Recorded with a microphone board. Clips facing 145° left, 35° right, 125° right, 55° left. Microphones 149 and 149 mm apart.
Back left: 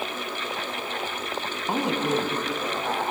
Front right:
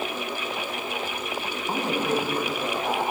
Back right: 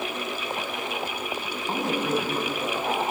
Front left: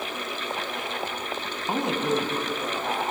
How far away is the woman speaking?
About 1.1 m.